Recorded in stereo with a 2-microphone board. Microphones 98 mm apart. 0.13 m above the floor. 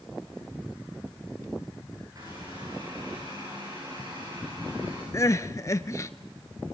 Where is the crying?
35° left (ahead or behind), 0.6 m.